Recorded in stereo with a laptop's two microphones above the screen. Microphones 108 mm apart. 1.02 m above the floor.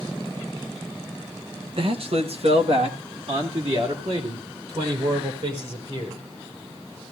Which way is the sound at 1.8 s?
55° right (ahead or behind).